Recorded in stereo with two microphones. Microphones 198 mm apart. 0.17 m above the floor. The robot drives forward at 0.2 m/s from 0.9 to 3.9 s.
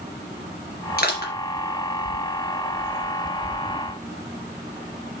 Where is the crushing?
60° left (ahead or behind), 3 m.